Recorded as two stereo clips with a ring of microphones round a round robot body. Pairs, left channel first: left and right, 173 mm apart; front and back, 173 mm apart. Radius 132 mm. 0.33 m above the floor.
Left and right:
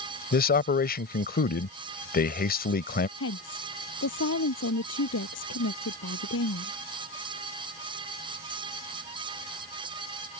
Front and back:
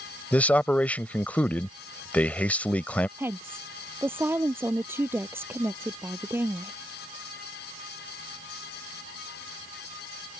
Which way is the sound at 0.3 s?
80° left.